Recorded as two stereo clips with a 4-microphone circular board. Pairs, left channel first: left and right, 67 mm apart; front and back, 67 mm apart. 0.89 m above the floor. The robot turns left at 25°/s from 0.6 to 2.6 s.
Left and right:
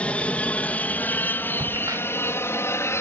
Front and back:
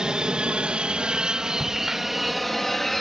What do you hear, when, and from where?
0.0 s an aircraft: 120° left; by 3.0 s 85° left
1.6 s a crack: 90° right; by 3.0 s 115° right